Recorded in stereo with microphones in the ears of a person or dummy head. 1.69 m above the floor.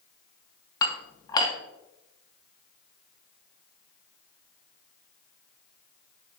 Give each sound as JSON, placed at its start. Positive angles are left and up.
{"t": 0.8, "sound": "dishes clattering", "side_deg": 25, "distance_m": 1.7}